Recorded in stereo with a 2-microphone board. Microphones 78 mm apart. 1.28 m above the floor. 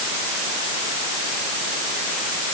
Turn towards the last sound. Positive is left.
No sound to turn to.